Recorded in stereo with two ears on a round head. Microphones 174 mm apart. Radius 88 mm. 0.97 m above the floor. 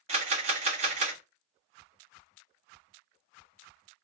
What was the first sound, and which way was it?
A camera shutter, 35° right (ahead or behind).